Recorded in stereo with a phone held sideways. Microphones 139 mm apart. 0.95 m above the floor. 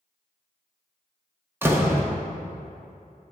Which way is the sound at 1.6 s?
15° right (ahead or behind).